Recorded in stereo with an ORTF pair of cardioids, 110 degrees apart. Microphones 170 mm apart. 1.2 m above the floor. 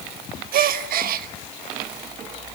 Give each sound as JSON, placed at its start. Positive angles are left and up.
{"t": 0.5, "sound": "a gasp", "azimuth_deg": -60, "distance_m": 1.1}